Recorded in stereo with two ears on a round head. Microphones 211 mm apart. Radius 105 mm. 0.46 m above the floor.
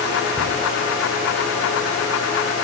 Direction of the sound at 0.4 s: 10° left (ahead or behind).